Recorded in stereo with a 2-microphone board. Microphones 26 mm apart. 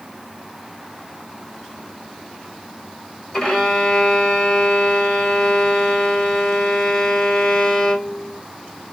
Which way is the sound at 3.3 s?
25° left (ahead or behind).